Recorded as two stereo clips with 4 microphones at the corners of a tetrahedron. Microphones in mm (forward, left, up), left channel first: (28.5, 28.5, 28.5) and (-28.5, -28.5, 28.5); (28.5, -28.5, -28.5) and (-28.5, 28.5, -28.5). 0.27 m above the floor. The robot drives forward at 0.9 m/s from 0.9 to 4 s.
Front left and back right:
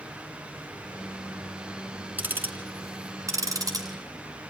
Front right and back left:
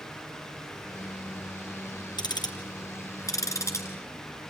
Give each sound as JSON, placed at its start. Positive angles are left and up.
{"t": 2.2, "sound": "ticking", "azimuth_deg": -70, "distance_m": 3.0}